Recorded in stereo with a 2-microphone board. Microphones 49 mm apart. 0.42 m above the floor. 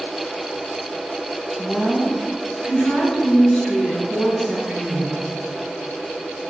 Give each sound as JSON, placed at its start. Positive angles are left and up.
{"t": 1.6, "sound": "a woman speaking", "side_deg": 25, "distance_m": 3.5}